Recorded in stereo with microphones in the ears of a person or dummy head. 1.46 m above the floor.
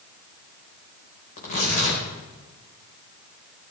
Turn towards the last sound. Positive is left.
turn(degrees=50)  # may be behind; listen again after turning